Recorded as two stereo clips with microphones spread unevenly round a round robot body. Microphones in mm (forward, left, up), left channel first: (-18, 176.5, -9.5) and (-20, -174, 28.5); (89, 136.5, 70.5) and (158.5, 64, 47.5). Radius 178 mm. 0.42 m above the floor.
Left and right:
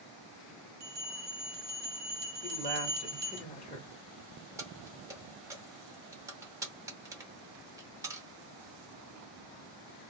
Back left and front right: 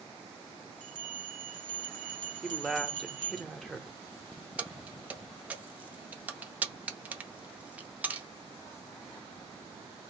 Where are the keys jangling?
5° right, 0.6 m.